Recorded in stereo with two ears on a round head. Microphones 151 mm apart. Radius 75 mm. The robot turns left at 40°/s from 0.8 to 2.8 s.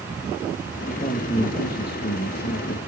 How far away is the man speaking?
About 1.4 m.